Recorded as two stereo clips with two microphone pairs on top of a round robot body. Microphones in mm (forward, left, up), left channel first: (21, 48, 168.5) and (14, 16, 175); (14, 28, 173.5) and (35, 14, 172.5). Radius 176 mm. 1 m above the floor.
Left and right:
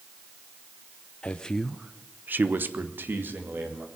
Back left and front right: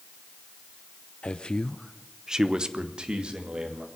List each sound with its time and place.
1.2 s a man speaking: 115° left, 1.0 m; by 3.9 s 80° right, 3 m